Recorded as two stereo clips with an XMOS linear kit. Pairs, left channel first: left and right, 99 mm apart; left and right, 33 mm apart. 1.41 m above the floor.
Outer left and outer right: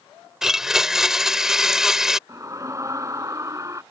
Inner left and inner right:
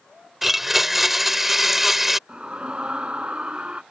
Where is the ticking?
No ticking in this recording.